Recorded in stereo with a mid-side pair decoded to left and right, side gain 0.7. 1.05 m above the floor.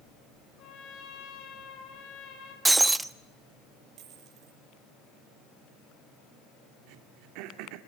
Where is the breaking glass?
10° right, 1.0 m.